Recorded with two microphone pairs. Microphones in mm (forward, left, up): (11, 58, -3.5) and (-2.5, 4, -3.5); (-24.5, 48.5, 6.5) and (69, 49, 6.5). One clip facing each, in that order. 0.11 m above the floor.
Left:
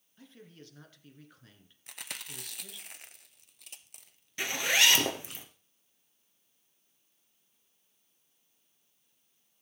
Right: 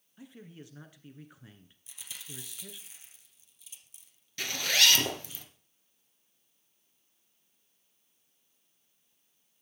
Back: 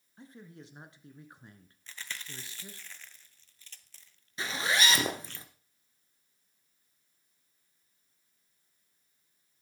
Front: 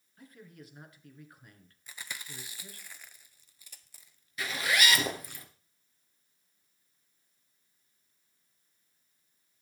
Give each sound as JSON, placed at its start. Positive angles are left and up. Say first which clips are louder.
{"t": 0.2, "sound": "a man speaking", "louder": "right 4 dB, back 2 dB", "azimuth_deg": -160, "distance_m": 1.4}
{"t": 1.9, "sound": "chewing", "louder": "left 4 dB, even", "azimuth_deg": 75, "distance_m": 0.7}
{"t": 4.4, "sound": "a zipper", "louder": "left 1 dB, even", "azimuth_deg": 130, "distance_m": 1.6}